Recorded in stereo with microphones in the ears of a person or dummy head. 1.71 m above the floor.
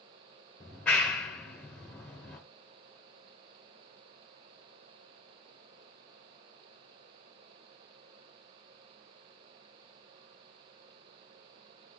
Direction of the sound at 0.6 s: 10° left (ahead or behind).